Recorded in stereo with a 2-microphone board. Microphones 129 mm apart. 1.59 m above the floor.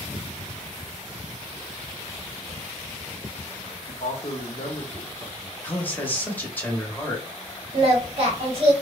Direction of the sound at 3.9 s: 60° left (ahead or behind).